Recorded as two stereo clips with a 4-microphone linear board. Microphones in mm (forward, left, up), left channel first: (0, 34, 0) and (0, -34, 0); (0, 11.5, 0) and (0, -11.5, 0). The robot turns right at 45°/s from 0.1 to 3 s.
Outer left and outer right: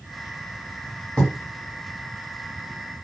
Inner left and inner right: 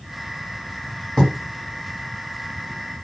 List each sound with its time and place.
1.2 s writing: 10° left (ahead or behind), 1.5 m; by 1.3 s 15° left (ahead or behind), 1.5 m